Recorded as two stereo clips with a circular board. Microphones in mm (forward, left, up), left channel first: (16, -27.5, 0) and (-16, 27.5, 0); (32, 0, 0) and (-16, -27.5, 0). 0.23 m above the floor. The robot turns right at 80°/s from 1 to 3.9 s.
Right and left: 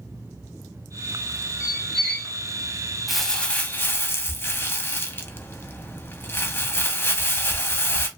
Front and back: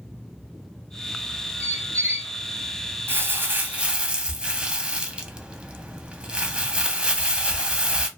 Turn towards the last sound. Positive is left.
turn(degrees=-85)